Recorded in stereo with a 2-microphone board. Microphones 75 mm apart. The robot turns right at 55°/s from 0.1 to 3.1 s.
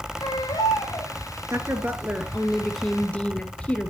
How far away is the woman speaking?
About 1.9 m.